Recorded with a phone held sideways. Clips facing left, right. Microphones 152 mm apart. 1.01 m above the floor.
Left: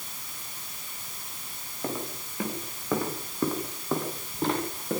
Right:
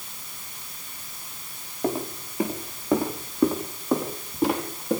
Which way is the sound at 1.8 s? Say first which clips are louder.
Right 6 dB; 25° right (ahead or behind).